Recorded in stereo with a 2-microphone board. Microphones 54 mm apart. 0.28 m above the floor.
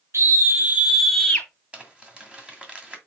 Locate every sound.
0.1 s a scream: 55° right (ahead or behind), 1.8 m; by 1.5 s 25° left (ahead or behind), 1.4 m
1.7 s crumpling: 20° right (ahead or behind), 1.8 m